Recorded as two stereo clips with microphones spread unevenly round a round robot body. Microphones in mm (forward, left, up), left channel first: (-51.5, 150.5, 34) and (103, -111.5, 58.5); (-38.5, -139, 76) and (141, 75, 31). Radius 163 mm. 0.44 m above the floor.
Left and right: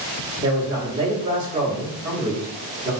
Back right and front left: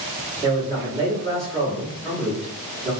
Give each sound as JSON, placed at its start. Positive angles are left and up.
{"t": 0.4, "sound": "a man speaking", "azimuth_deg": 15, "distance_m": 1.1}